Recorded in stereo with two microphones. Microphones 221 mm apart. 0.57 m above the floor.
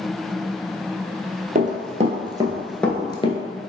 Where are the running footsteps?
35° right (ahead or behind), 0.9 m; by 3.4 s 30° left (ahead or behind), 0.6 m.